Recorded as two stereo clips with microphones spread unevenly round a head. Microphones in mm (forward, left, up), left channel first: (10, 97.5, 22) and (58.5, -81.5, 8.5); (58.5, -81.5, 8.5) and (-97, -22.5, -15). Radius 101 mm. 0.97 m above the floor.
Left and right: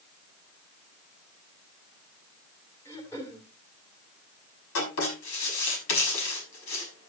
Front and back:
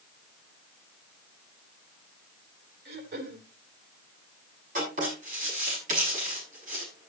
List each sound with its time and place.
2.9 s throat clearing: 175° right, 3 m
4.8 s writing: 105° left, 6 m